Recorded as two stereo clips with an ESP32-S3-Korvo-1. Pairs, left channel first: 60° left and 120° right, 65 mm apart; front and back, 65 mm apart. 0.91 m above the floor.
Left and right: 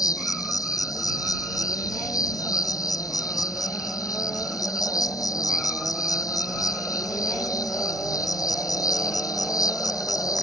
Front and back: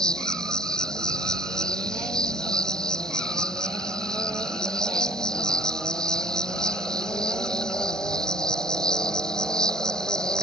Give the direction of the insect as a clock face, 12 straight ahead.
9 o'clock.